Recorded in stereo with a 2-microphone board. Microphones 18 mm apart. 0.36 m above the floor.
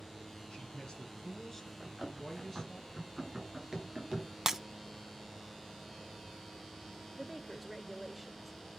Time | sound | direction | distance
0.5 | a man speaking | 40° left (ahead or behind) | 3.5 m
1.8 | running footsteps | 20° right (ahead or behind) | 9 m
4.5 | breaking glass | 20° right (ahead or behind) | 0.5 m
7.2 | a woman speaking | centre (ahead or behind) | 0.8 m